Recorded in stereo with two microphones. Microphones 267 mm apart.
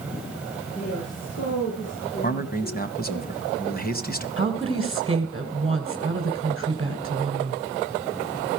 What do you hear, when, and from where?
0.8 s a woman speaking: 65° left (ahead or behind), 7.5 m
2.2 s a man speaking: 35° left (ahead or behind), 1.5 m
4.4 s a woman speaking: 20° right (ahead or behind), 2.5 m